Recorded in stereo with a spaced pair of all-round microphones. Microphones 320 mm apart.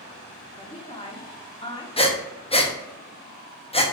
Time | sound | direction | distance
0.6 | a woman speaking | 15° left (ahead or behind) | 0.8 m
2.0 | breathing | 20° left (ahead or behind) | 0.5 m